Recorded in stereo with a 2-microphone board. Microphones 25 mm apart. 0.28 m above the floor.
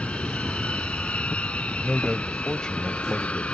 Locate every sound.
0.0 s an aircraft: 60° left (ahead or behind)
1.7 s a man speaking: 35° left (ahead or behind)